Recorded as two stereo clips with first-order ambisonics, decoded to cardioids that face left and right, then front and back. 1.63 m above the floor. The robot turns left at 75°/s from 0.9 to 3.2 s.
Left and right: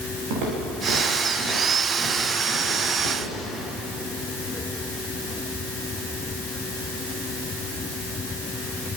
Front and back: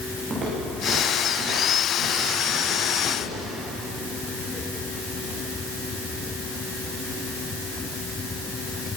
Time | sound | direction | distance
0.3 | footsteps | 105° right | 9.5 m